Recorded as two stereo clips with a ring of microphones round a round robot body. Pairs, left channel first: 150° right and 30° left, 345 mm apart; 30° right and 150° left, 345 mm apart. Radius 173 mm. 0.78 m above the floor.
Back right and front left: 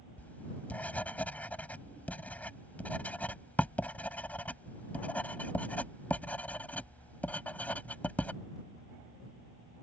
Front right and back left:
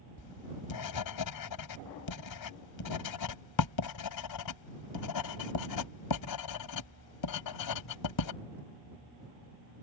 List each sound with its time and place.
0.2 s writing: 65° right